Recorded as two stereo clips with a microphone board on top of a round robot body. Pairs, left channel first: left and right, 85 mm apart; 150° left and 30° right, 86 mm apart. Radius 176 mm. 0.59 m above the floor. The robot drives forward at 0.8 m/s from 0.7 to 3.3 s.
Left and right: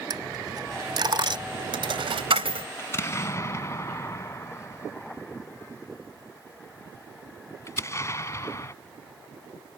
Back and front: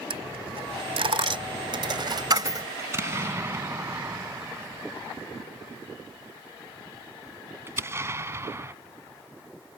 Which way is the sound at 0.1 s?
45° right.